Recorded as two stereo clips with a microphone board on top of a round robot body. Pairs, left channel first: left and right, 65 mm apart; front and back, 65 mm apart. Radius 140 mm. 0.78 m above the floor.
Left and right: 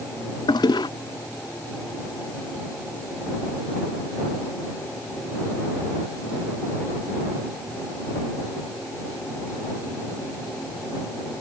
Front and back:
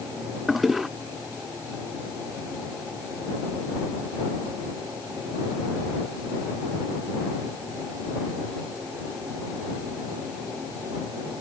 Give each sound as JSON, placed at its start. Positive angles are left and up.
{"t": 0.5, "sound": "a toilet flushing", "azimuth_deg": 95}